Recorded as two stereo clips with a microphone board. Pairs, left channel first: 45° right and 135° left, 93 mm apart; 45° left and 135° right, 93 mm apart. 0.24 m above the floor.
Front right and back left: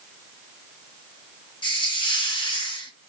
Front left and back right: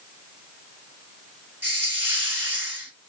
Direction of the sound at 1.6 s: 70° right.